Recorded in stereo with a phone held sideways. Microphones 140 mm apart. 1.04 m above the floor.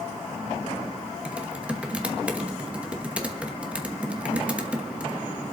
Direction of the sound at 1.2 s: 10° right (ahead or behind).